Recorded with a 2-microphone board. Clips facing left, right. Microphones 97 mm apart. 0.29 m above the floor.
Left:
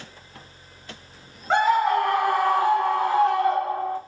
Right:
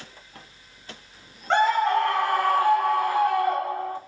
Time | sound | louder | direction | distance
1.5 | a scream | left 1 dB | 5° left (ahead or behind) | 1.2 m